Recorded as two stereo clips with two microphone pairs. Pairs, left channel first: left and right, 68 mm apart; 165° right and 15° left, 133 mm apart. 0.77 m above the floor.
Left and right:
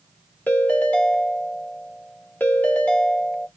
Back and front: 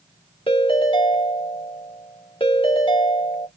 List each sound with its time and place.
0.5 s a ringtone: 155° left, 2 m